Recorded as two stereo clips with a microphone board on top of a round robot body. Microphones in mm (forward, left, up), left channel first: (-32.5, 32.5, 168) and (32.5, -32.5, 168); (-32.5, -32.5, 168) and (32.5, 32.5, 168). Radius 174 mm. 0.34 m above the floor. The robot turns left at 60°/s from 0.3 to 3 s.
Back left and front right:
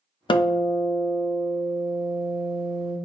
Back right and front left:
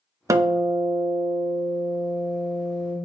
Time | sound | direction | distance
0.3 | a guitar | 100° left | 0.7 m